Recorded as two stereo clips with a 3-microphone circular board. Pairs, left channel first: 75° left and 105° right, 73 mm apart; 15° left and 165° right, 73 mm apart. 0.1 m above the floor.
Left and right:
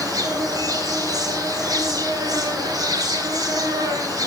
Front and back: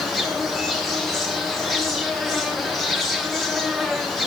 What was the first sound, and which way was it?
An insect, 70° right.